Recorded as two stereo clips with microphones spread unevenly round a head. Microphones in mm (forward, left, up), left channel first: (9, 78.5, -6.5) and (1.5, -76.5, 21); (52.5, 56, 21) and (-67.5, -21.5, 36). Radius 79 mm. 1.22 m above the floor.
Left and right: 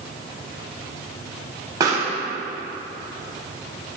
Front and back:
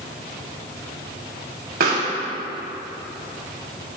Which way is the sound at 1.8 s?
160° right.